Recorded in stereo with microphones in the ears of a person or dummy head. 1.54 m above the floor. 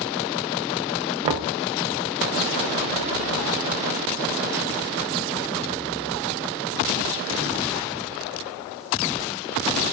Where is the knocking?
30° right (ahead or behind), 0.5 m.